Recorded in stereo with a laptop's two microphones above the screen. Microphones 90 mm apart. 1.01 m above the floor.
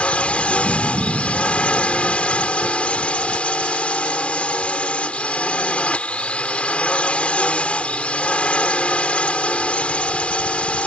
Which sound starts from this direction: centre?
A drone, at 0.0 s.